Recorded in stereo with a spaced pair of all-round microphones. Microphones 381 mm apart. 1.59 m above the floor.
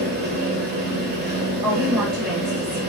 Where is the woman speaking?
70° right (ahead or behind), 2 m.